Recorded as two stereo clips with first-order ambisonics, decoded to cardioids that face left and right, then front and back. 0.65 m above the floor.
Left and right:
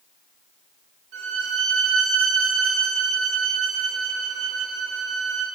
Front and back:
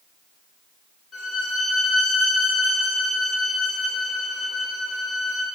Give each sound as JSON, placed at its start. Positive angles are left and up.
{"t": 1.1, "sound": "a violin", "azimuth_deg": -70, "distance_m": 1.1}